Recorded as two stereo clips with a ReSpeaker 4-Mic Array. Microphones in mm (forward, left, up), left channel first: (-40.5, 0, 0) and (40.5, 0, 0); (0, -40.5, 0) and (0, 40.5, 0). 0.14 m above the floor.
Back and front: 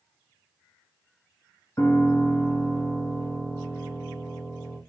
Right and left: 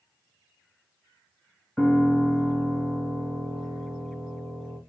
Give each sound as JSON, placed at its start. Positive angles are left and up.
{"t": 1.8, "sound": "a piano", "azimuth_deg": -175, "distance_m": 1.1}